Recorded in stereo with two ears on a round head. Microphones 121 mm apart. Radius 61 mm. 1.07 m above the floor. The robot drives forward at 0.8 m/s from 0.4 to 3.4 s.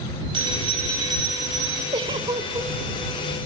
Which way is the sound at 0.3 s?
40° right (ahead or behind).